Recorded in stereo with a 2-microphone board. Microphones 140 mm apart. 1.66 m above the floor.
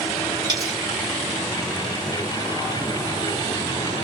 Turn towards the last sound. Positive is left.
turn(degrees=-30)  # may be behind; listen again after turning